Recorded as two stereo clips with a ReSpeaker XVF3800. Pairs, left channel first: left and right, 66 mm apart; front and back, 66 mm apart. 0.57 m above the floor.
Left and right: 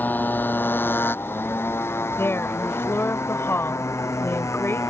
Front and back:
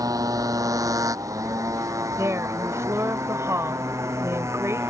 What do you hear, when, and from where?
0.0 s a motorcycle: 150° left; by 4.9 s 130° left
2.2 s a woman speaking: 140° left